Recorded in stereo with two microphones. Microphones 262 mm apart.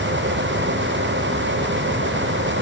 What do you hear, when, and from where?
Only background noise.